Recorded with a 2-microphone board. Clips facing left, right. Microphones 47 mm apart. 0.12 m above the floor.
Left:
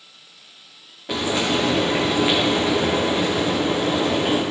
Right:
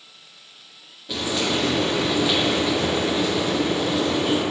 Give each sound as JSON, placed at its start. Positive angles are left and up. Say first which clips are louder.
{"t": 1.1, "sound": "frying", "louder": "left 2 dB", "side_deg": 55, "distance_m": 3.0}